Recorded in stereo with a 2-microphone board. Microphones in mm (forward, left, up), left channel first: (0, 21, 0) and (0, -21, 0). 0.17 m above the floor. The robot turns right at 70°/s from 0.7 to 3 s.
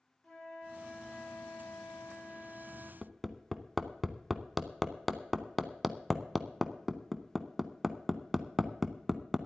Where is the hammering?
Centre (ahead or behind), 0.7 m.